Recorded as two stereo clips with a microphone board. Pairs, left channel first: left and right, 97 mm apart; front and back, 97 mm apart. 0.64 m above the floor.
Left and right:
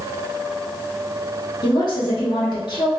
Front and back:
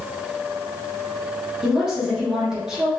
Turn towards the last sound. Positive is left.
turn(degrees=95)